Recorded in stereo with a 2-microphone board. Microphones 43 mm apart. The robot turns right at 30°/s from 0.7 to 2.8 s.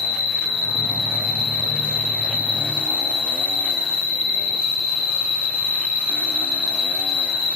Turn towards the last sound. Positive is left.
turn(degrees=-145)